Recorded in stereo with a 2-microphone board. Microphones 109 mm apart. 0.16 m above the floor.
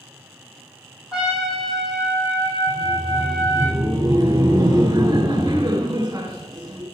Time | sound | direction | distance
1.1 | a trumpet | 10° right (ahead or behind) | 4 m
2.7 | laughter | 35° right (ahead or behind) | 1.2 m